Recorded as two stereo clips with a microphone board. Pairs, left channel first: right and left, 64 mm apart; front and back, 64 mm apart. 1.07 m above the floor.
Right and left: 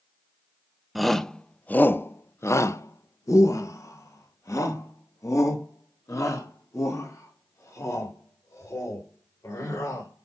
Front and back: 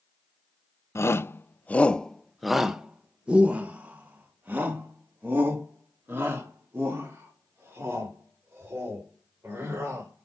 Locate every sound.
0.9 s a shout: straight ahead, 0.9 m; by 10.2 s 130° right, 5.5 m